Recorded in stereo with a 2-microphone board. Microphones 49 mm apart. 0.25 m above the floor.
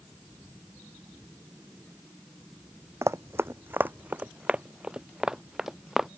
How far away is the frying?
No frying in this recording.